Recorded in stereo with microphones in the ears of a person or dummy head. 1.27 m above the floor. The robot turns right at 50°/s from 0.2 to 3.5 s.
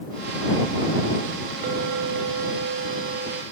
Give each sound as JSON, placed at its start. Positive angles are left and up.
{"t": 1.6, "sound": "a clink", "azimuth_deg": -130}